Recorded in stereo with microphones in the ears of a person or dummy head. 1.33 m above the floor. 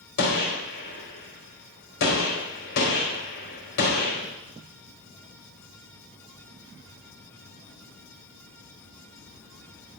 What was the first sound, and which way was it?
A gunshot, 65° left (ahead or behind).